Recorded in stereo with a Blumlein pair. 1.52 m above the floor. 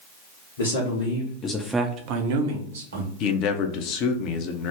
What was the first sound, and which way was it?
A man speaking, 65° left.